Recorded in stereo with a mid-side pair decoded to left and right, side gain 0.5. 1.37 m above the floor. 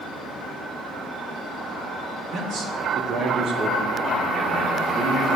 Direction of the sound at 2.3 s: 60° right.